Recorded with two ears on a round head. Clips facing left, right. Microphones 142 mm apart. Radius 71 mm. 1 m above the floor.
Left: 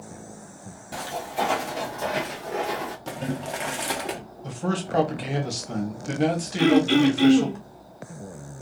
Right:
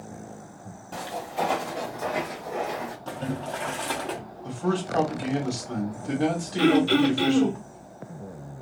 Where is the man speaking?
25° left (ahead or behind), 1.0 m.